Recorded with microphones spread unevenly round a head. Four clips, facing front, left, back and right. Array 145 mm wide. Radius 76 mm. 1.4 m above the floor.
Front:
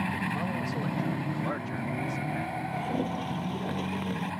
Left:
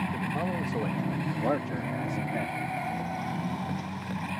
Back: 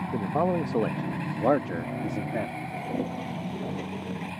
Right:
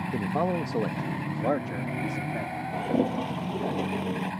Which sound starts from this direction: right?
A toilet flushing, at 2.7 s.